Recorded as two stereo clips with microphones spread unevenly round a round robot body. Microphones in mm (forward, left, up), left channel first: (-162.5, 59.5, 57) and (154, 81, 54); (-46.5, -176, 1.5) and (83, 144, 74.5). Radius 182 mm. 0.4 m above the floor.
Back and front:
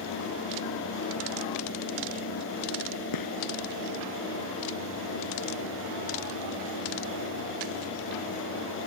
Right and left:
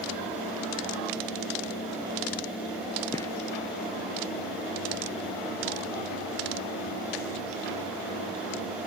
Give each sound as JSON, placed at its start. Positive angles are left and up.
{"t": 3.1, "sound": "a gunshot", "azimuth_deg": 165}